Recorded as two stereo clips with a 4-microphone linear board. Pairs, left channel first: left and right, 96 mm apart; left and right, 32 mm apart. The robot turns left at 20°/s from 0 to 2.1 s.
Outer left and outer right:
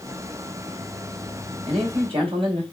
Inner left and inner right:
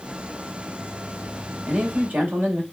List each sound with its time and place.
1.7 s a man speaking: 65° right (ahead or behind), 2 m; by 2.6 s 70° right (ahead or behind), 2 m